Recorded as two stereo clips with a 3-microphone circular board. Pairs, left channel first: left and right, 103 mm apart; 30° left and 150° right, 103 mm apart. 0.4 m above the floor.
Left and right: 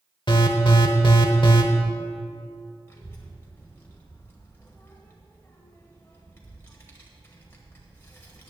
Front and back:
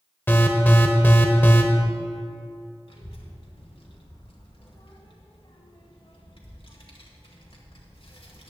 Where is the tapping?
No tapping in this recording.